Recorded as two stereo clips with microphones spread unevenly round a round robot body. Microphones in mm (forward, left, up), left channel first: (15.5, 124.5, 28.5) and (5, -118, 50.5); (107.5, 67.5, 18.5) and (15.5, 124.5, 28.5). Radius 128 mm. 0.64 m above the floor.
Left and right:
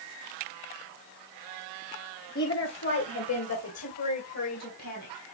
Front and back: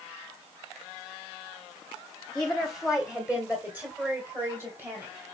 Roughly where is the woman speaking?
Ahead left.